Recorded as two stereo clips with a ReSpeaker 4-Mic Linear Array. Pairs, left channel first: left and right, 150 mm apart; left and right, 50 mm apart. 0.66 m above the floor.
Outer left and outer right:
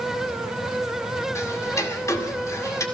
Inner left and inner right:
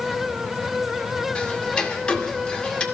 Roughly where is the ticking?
Centre.